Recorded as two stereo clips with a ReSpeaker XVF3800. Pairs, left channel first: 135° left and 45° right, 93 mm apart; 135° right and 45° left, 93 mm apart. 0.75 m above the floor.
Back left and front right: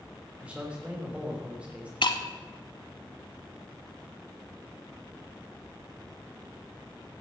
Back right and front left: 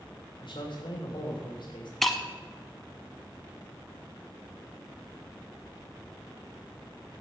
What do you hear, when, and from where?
0.4 s a man speaking: 120° right, 3 m
2.0 s breaking glass: 135° left, 1.1 m